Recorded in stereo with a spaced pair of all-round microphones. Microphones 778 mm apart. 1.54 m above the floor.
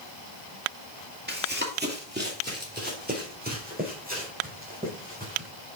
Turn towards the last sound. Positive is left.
turn(degrees=-10)  # may be behind; listen again after turning